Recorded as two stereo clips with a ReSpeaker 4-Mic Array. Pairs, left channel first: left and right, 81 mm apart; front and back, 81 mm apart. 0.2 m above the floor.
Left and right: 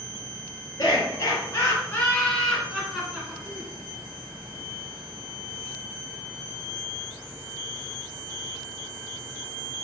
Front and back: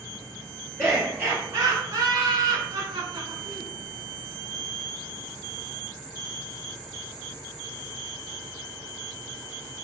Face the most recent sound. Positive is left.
turn(degrees=-155)